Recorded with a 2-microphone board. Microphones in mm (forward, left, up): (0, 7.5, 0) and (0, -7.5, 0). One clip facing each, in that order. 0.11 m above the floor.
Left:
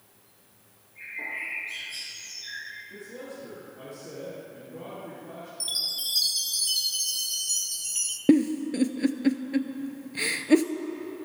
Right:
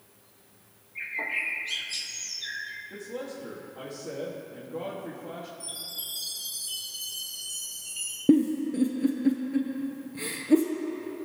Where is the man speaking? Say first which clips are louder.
Right 3 dB; 45° right (ahead or behind), 3.5 m.